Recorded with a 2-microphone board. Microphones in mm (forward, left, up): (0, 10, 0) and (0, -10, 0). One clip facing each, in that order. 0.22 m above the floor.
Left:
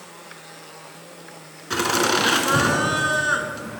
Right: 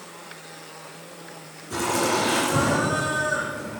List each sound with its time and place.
1.7 s laughter: 65° left (ahead or behind), 2 m